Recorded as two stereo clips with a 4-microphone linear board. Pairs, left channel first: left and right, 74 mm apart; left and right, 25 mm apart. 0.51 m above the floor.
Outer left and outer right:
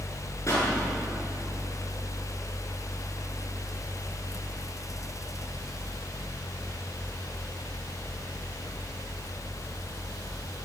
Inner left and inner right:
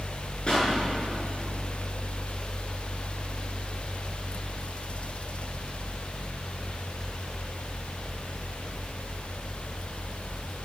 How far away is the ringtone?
I don't hear a ringtone.